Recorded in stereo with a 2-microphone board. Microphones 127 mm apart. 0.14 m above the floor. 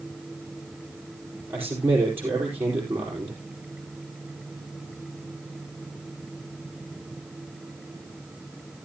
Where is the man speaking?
20° right (ahead or behind), 4 m.